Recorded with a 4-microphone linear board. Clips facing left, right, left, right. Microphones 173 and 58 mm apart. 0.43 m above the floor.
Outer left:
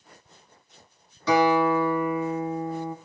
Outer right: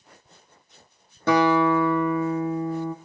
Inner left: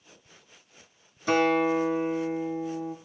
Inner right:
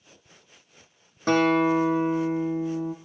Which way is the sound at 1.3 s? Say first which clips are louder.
Outer right 1 dB, inner right 2 dB; 50° right (ahead or behind).